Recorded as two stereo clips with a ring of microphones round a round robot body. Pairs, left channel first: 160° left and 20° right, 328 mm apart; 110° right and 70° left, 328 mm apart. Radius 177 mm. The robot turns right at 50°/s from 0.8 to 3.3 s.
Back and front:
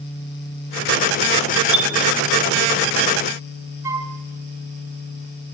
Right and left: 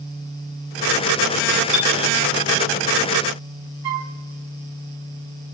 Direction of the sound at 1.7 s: 55° right.